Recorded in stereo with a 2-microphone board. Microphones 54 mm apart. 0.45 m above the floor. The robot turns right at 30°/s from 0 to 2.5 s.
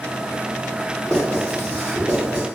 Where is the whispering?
I don't hear whispering.